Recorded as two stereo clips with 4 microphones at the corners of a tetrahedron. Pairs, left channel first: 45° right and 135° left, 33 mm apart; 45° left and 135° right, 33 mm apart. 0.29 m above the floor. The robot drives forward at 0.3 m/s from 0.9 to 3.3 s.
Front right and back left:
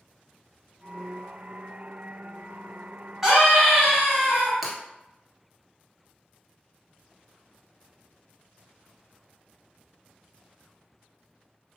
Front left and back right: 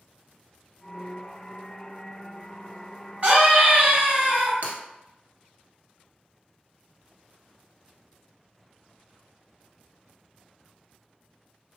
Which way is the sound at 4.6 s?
135° right.